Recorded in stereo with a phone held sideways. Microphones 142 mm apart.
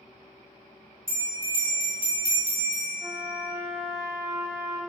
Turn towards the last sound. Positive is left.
turn(degrees=-20)  # may be behind; listen again after turning